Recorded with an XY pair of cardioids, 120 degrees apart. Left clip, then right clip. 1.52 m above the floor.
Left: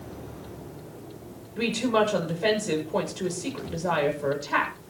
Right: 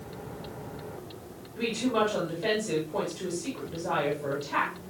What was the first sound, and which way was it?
A woman speaking, 40° left.